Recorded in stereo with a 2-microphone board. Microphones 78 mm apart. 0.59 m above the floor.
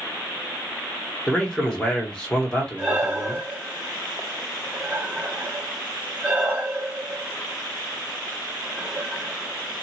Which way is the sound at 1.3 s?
10° left (ahead or behind).